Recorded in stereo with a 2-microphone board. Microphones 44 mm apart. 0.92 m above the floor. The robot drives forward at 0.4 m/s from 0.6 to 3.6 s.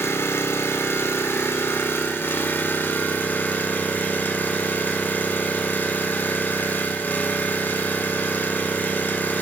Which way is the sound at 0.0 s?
80° left.